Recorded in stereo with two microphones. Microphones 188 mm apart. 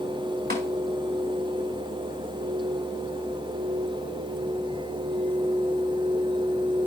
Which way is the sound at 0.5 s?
55° right (ahead or behind).